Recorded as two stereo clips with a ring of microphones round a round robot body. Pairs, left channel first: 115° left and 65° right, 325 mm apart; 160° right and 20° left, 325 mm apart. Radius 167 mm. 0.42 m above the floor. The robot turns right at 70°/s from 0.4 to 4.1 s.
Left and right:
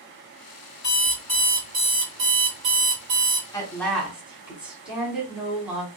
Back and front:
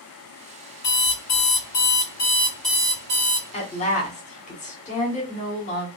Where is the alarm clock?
165° left, 1.5 m; by 3.4 s 15° right, 1.5 m.